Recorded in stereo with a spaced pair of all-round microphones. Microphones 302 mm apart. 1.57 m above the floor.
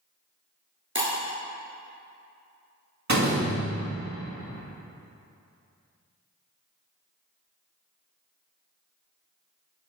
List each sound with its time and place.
0.9 s breaking glass: 40° right (ahead or behind), 2.0 m
3.1 s a door slam: 65° right (ahead or behind), 1.9 m